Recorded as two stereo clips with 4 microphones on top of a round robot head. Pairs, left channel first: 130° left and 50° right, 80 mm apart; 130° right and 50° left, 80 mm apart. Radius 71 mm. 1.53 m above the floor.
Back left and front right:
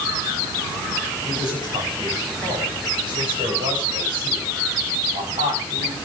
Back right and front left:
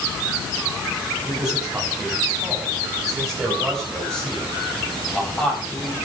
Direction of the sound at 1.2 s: 25° right.